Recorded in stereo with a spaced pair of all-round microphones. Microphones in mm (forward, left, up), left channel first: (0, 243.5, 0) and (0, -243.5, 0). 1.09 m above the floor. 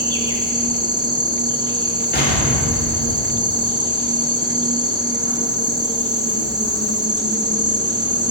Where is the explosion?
20° left (ahead or behind), 2.5 m.